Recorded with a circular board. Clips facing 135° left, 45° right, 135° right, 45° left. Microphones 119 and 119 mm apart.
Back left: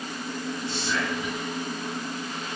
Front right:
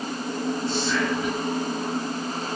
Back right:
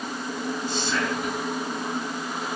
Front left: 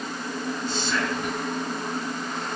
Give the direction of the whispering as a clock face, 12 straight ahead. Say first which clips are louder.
Front right 3 dB, even; 6 o'clock.